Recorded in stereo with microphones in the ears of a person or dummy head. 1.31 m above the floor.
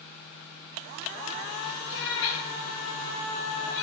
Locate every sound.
1.9 s a cat meowing: 70° left (ahead or behind), 3 m